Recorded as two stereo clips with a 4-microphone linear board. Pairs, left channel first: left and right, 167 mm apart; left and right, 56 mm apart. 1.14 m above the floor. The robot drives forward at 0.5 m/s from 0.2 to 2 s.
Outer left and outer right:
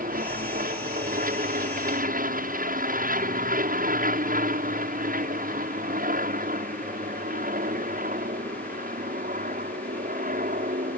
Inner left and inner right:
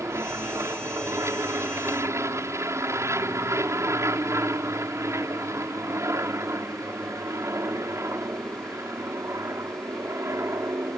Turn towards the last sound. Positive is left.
turn(degrees=-60)  # may be behind; listen again after turning